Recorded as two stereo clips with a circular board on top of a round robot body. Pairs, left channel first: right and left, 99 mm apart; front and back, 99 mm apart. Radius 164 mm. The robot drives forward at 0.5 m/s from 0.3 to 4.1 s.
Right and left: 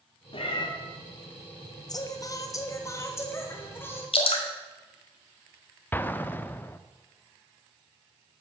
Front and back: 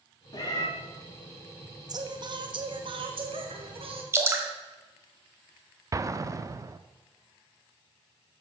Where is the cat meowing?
50° right, 2 m; by 0.7 s 55° right, 2 m.